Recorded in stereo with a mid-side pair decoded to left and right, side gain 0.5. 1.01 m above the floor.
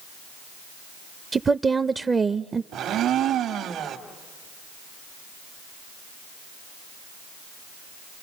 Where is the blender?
65° right, 1.7 m.